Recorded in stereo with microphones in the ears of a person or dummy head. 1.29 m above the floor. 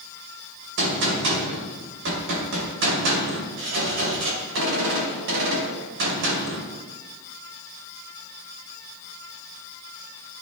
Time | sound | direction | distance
0.8 | a gunshot | 65° right (ahead or behind) | 2.5 m